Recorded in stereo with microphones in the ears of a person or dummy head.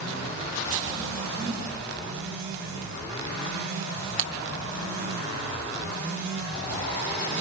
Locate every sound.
1.4 s a whoosh: 20° right (ahead or behind), 8 m
4.2 s breaking glass: 35° right (ahead or behind), 1.9 m